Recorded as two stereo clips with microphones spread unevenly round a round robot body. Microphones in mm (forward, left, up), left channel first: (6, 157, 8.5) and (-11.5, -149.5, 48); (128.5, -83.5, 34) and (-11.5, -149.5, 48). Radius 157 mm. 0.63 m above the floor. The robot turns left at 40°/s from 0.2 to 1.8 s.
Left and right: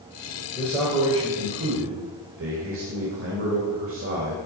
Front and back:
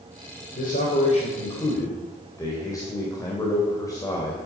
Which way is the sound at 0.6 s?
10° left.